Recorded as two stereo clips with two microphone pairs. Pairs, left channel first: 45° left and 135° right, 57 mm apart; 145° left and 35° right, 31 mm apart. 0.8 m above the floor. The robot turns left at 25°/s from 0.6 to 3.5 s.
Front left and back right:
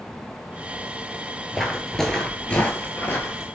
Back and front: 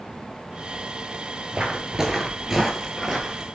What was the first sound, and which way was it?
Footsteps, 45° right.